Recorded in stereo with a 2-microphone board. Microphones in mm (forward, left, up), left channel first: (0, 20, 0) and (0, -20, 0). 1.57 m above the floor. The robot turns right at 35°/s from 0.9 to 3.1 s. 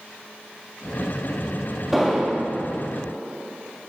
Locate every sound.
1.9 s an explosion: 5° right (ahead or behind), 1.9 m; by 2.5 s 10° left (ahead or behind), 1.9 m